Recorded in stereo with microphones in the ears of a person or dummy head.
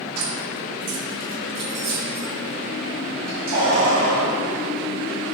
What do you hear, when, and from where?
0.2 s keys jangling: 70° right (ahead or behind), 2.5 m; by 4.3 s 40° right (ahead or behind), 4.5 m